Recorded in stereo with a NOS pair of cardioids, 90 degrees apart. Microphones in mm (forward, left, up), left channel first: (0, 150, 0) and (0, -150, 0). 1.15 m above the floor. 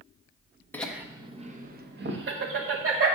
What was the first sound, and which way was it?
Laughter, 5° left.